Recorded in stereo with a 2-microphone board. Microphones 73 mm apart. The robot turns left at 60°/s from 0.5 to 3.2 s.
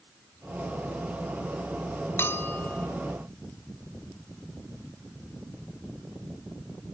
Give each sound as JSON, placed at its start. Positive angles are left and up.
{"t": 2.2, "sound": "a bell", "azimuth_deg": 70, "distance_m": 1.6}